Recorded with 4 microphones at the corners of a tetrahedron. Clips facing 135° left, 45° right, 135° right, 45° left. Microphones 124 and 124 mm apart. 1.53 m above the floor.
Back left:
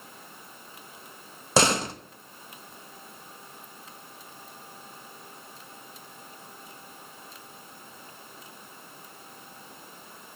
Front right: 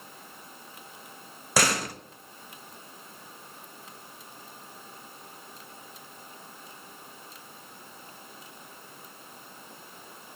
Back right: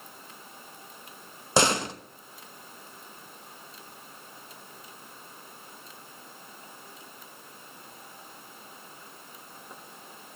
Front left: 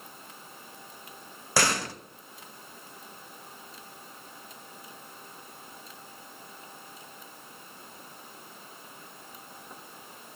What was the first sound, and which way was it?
A door slam, straight behind.